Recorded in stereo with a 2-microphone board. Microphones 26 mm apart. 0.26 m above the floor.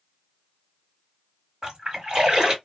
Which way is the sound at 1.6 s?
35° right (ahead or behind).